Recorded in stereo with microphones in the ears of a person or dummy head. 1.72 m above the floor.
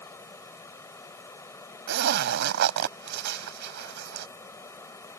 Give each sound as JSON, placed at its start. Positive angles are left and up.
{"t": 0.0, "sound": "running water", "side_deg": 20}
{"t": 1.9, "sound": "a zipper", "side_deg": -60}